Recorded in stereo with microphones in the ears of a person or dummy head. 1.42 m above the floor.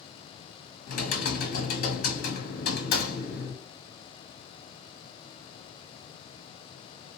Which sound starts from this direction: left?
Typing on a keyboard, at 0.9 s.